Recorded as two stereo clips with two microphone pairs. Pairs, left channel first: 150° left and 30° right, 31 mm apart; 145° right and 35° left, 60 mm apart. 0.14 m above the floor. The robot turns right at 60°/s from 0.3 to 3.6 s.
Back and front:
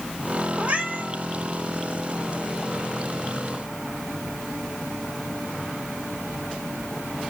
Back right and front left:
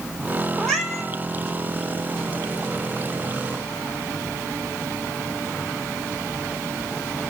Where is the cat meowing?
75° right, 1.5 m; by 1.1 s 45° right, 1.5 m.